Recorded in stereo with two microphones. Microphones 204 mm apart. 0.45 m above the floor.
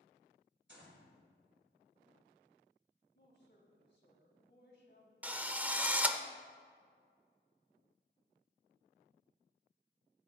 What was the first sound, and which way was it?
A gunshot, 65° right (ahead or behind).